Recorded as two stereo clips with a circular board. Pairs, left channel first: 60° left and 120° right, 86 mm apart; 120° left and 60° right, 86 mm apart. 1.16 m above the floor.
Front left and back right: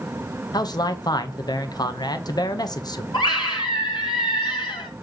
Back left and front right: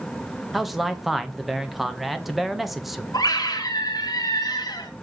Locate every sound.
0.5 s a man speaking: 30° left, 1.0 m
3.1 s a scream: 85° left, 1.7 m